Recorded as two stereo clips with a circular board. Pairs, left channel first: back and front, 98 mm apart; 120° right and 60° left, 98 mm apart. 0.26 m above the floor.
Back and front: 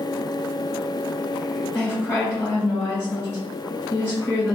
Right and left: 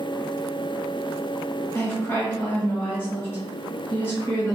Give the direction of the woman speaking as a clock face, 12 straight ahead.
5 o'clock.